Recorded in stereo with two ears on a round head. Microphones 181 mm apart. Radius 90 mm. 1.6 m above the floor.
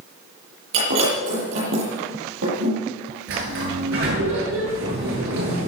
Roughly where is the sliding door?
Right.